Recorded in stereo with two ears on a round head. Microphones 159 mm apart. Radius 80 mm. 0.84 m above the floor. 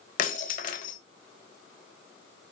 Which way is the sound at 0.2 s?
45° left (ahead or behind).